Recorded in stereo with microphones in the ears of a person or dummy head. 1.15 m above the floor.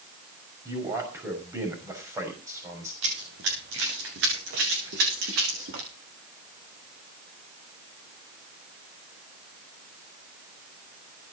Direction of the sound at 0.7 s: 15° right (ahead or behind).